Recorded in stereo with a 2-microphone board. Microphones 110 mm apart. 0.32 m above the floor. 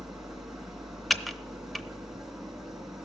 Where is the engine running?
5° right (ahead or behind), 2 m.